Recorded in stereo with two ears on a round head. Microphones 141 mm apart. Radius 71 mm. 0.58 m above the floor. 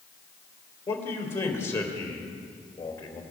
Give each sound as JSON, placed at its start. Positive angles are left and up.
{"t": 0.9, "sound": "a man speaking", "side_deg": 15, "distance_m": 2.5}